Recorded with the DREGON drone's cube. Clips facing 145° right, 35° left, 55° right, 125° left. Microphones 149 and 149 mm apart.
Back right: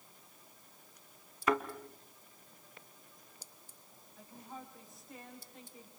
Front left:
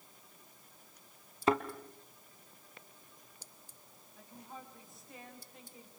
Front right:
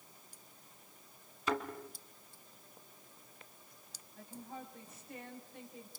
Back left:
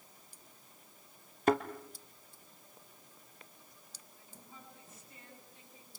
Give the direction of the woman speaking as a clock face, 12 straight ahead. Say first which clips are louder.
Back right 1 dB, front right 10 dB; 2 o'clock.